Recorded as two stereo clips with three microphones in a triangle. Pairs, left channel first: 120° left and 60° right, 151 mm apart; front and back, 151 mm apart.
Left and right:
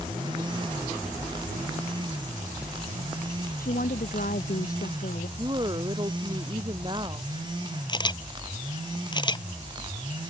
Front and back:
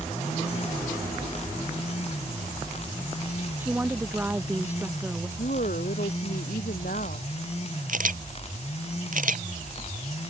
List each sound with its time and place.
3.6 s a woman speaking: 105° left
5.4 s a woman speaking: 5° right
7.9 s a camera shutter: 175° left